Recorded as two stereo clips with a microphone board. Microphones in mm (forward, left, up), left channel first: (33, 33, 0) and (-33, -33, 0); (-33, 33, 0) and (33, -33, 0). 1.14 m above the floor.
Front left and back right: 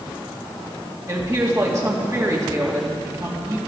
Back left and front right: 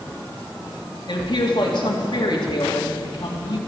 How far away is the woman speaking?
About 2.5 m.